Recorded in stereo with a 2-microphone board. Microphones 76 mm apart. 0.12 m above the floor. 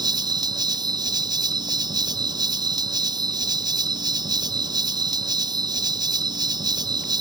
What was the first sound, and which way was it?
An insect, 75° right (ahead or behind).